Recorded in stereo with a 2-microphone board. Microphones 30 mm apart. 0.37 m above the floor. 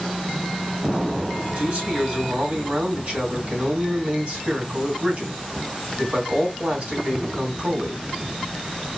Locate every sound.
1.6 s a man speaking: 45° right (ahead or behind), 2.5 m